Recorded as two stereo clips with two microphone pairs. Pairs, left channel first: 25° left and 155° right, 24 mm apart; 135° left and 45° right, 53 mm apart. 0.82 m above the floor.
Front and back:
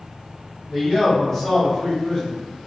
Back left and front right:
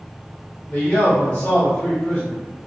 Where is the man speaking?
115° left, 1.3 m.